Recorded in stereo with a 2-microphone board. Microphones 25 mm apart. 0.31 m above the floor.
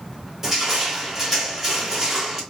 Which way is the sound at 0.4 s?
15° right (ahead or behind).